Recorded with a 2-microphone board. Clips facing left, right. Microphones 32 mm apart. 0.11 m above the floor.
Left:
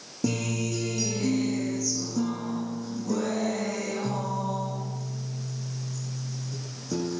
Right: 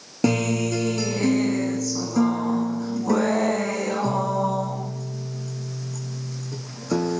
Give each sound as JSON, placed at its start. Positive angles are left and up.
{"t": 0.2, "sound": "a guitar", "side_deg": -60, "distance_m": 1.8}